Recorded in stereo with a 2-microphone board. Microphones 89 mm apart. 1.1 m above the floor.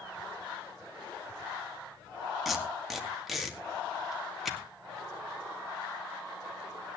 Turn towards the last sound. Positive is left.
turn(degrees=0)  # may be behind; listen again after turning